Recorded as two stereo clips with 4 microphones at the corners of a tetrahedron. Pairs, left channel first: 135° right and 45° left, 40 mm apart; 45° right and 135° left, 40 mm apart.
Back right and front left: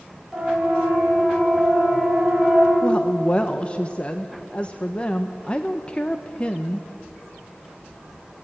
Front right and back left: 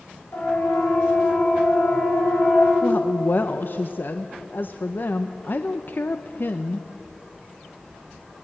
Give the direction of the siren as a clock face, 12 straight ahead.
2 o'clock.